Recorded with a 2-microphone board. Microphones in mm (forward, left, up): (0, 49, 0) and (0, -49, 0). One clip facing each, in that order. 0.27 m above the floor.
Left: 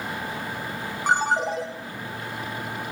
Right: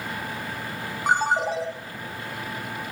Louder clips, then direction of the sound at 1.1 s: Even; 5° right (ahead or behind).